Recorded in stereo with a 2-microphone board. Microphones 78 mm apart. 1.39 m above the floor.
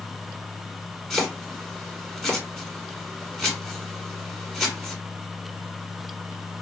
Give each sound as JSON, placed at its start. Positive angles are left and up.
{"t": 1.1, "sound": "chopping", "side_deg": 10, "distance_m": 1.2}